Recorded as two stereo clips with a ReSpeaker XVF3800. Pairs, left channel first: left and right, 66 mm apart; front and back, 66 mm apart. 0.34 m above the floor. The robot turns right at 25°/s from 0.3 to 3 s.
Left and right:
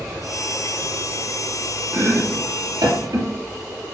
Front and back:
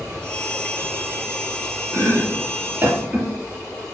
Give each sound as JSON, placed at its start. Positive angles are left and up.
{"t": 1.9, "sound": "chopping", "azimuth_deg": -150, "distance_m": 1.9}